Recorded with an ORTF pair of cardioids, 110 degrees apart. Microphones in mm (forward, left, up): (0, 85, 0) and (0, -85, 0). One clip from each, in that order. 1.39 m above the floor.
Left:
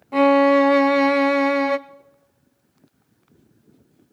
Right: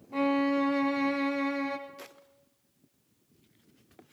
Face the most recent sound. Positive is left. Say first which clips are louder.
# left 13 dB
turn(degrees=55)